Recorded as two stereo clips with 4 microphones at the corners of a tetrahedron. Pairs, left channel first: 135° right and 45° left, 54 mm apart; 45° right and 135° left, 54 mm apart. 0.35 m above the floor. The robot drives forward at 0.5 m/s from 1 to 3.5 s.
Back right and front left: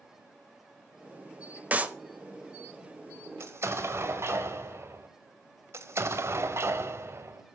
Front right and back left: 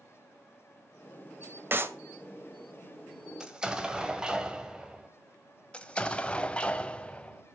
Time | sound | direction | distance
1.7 | a clap | 100° left | 1.0 m
3.4 | an explosion | 55° left | 1.6 m
5.7 | an explosion | 20° left | 1.0 m